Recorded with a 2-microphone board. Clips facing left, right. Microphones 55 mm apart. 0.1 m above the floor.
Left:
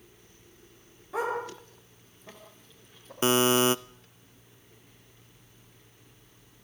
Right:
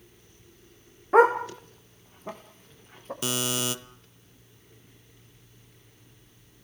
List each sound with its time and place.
1.1 s a dog barking: 50° right (ahead or behind), 4.5 m; by 3.1 s 40° right (ahead or behind), 5.5 m
3.2 s a buzzer: 30° left (ahead or behind), 0.7 m